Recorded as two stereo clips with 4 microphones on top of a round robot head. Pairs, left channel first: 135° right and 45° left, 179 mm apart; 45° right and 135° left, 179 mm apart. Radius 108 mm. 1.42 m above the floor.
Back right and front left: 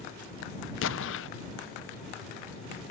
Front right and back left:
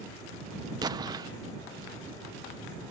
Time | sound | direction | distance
0.8 | an explosion | 155° right | ?